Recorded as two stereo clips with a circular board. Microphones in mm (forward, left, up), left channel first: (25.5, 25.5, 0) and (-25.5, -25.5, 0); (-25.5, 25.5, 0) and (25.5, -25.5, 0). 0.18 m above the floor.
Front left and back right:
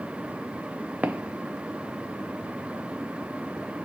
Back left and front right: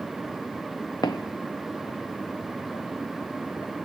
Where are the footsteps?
160° left, 0.8 m; by 3.7 s 145° left, 5 m.